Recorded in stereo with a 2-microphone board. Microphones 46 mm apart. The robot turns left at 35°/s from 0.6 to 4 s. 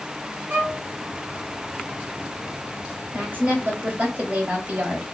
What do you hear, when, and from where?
0.5 s a violin: 55° right (ahead or behind), 1.2 m; by 0.8 s 50° right (ahead or behind), 1.2 m
3.1 s a woman speaking: 85° right, 1.5 m; by 5.0 s 115° right, 1.5 m